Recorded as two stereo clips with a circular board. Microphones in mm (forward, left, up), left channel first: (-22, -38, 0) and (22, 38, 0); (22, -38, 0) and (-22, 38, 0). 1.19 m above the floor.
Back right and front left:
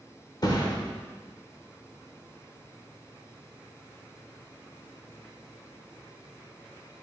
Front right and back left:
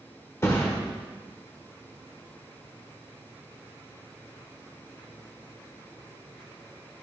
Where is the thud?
110° right, 1.1 m.